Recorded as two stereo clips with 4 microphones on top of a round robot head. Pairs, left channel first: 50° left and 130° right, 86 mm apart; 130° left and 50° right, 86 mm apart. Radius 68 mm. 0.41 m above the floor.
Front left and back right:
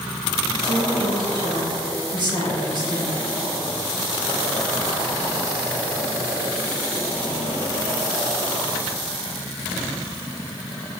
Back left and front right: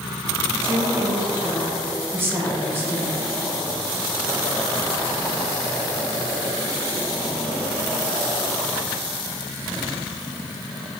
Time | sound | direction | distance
0.5 | a woman speaking | 110° right | 2.5 m